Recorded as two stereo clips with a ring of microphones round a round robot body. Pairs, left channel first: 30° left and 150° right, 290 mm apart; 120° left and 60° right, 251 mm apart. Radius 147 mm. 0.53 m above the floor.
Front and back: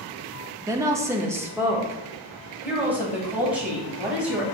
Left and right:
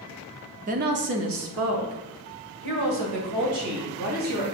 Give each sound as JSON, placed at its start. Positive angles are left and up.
{"t": 0.7, "sound": "a woman speaking", "azimuth_deg": -80, "distance_m": 0.7}